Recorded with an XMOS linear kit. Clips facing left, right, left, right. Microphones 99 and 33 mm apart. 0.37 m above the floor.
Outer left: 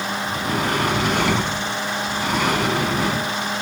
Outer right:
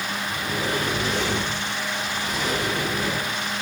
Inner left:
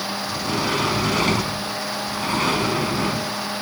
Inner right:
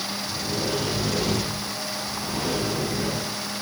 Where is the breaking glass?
I don't hear breaking glass.